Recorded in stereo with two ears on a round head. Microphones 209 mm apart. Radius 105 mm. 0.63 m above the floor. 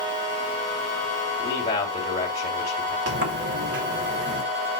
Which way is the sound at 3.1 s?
50° right (ahead or behind).